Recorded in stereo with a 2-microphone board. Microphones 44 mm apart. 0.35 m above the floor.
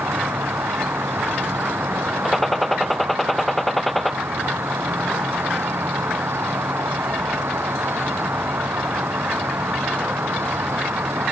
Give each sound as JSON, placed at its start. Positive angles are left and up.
{"t": 0.0, "sound": "an insect", "side_deg": -70}
{"t": 2.2, "sound": "a gunshot", "side_deg": 5}